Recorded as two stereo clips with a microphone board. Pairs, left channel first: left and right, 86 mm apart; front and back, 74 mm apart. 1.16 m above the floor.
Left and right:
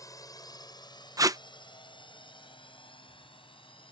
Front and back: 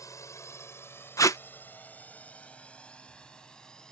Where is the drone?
40° left; by 3.9 s 80° left.